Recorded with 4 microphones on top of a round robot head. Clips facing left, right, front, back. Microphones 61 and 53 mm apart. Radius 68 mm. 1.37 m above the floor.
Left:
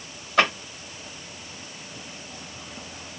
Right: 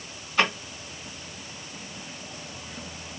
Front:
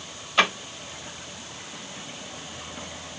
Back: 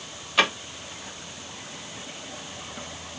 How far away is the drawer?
About 1.3 m.